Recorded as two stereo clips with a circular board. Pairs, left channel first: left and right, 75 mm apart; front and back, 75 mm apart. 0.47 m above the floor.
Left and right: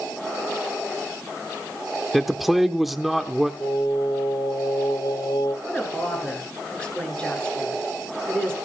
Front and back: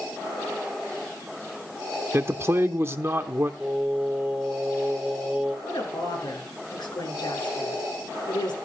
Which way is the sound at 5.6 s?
15° left.